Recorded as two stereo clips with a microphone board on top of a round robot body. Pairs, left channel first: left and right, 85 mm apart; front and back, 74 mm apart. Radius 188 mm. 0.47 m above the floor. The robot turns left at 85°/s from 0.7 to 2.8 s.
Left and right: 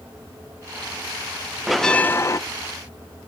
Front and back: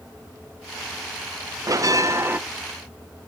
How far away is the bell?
About 0.7 m.